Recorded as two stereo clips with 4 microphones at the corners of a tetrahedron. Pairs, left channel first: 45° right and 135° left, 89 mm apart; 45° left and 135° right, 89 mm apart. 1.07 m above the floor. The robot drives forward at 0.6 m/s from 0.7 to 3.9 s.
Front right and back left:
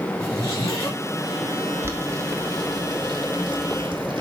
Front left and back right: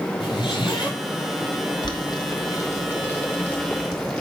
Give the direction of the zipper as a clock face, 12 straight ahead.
12 o'clock.